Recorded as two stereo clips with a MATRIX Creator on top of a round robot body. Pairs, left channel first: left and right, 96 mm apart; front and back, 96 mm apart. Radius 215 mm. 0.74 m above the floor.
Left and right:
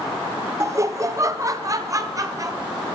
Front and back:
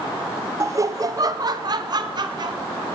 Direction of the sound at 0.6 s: 135° right.